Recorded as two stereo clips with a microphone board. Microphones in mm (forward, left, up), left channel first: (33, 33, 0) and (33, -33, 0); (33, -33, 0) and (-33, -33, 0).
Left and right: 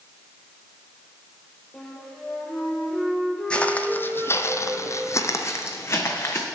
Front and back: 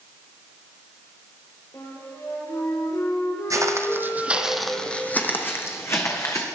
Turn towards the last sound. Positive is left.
turn(degrees=40)